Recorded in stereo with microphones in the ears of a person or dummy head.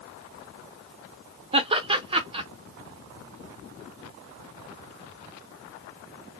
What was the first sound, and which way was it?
Laughter, 25° right (ahead or behind).